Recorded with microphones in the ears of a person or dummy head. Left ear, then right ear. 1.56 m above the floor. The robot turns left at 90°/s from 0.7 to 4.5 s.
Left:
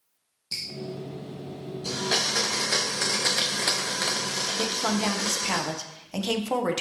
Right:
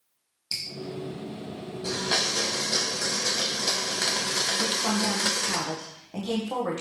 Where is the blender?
15° right (ahead or behind), 0.9 m.